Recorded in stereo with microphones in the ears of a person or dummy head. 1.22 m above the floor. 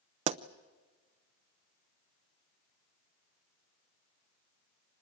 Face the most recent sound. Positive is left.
turn(degrees=-35)  # may be behind; listen again after turning